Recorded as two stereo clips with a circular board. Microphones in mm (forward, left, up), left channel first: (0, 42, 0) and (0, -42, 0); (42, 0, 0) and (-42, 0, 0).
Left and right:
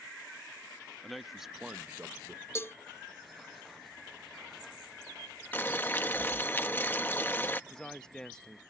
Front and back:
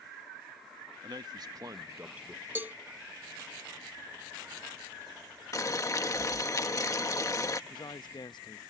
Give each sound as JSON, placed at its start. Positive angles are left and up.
{"t": 1.0, "sound": "a man speaking", "azimuth_deg": 180}
{"t": 2.5, "sound": "a cowbell", "azimuth_deg": 125}
{"t": 5.5, "sound": "boiling", "azimuth_deg": 30}
{"t": 7.7, "sound": "a man speaking", "azimuth_deg": 10}